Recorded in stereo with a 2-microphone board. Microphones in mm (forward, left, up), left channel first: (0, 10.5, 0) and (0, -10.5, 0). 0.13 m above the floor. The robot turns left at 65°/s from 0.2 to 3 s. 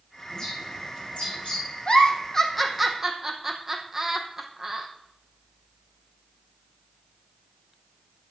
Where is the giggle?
50° left (ahead or behind), 2 m; by 4.9 s 20° right (ahead or behind), 2 m.